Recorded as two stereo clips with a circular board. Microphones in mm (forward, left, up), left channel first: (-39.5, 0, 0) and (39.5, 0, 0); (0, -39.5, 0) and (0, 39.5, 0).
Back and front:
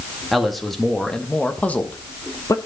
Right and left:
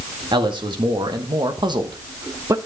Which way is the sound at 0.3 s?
90° left.